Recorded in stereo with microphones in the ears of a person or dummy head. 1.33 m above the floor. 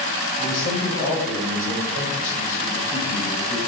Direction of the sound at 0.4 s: 50° left (ahead or behind).